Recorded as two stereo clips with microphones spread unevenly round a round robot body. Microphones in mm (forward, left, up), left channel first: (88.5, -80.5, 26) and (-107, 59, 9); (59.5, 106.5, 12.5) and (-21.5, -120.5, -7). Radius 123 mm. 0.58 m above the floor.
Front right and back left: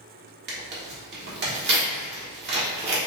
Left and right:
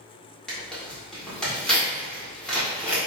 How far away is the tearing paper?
About 1.6 m.